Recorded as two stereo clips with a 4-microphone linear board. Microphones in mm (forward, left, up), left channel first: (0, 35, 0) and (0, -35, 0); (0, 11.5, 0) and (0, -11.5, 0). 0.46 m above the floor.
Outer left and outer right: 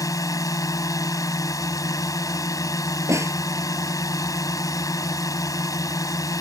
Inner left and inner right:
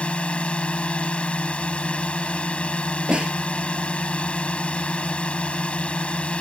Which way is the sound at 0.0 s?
55° left (ahead or behind).